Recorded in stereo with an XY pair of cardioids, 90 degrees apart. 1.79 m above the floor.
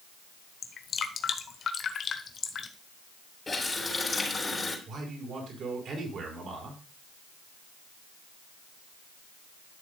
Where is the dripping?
60° left, 1.1 m.